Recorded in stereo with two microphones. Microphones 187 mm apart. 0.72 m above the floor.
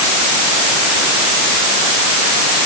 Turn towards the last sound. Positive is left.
No sound to turn to.